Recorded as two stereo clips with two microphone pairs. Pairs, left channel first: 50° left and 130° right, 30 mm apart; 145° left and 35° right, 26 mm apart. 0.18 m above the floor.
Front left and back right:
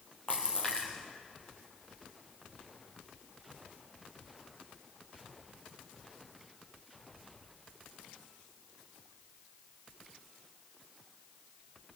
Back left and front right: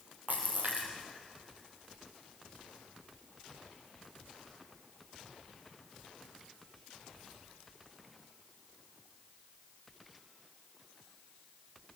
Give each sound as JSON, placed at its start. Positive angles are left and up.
{"t": 0.3, "sound": "a splash", "azimuth_deg": -5, "distance_m": 6.0}